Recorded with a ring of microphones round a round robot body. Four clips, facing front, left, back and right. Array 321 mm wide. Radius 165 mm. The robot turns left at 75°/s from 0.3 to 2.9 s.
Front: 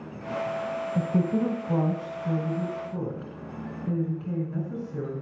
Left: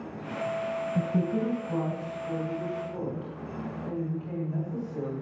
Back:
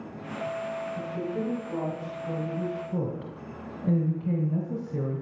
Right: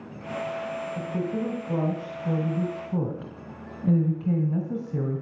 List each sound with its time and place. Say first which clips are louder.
0.9 s a woman speaking: left 2 dB, front 6 dB; 25° left, 2.5 m; by 5.2 s 120° right, 2.5 m